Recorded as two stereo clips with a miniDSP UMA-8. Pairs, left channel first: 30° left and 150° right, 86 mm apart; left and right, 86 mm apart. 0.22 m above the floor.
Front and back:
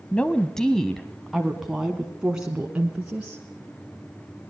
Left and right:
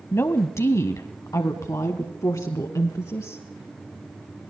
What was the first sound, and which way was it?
A woman speaking, 90° left.